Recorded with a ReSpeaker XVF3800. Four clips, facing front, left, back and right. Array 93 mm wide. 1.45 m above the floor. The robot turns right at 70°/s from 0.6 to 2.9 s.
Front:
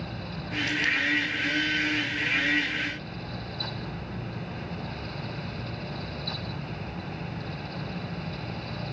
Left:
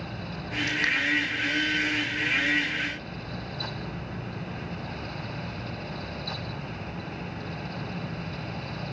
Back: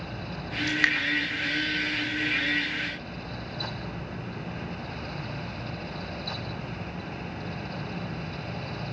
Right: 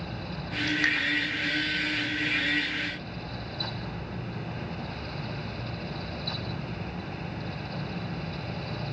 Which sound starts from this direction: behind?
Dripping, at 0.7 s.